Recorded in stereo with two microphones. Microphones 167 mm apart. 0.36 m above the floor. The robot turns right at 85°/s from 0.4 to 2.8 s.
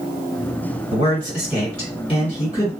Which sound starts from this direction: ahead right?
A man speaking, at 0.9 s.